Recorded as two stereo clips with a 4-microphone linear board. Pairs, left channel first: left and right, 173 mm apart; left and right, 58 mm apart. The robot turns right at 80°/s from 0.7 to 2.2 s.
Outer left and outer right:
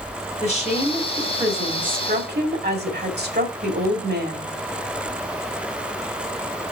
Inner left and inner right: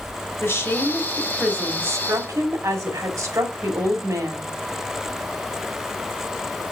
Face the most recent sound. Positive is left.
turn(degrees=-100)